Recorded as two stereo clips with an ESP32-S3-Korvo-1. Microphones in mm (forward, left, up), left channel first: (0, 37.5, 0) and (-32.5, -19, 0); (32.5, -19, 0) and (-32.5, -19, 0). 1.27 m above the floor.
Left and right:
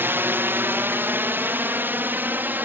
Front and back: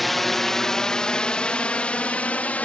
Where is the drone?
90° right; by 2.7 s 65° right.